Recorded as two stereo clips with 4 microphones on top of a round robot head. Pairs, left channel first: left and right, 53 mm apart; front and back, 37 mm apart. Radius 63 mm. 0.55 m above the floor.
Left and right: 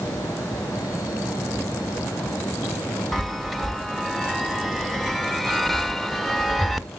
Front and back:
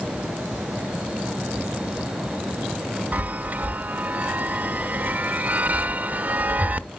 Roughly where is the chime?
Behind.